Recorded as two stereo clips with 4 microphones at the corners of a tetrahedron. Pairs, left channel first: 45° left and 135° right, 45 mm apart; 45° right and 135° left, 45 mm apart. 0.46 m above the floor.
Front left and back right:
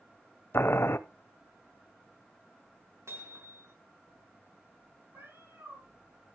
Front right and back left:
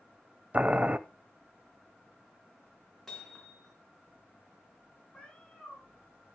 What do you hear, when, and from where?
0.5 s boiling: 75° left, 0.6 m
3.1 s hammering: 130° right, 5 m
5.1 s a cat meowing: 115° right, 5.5 m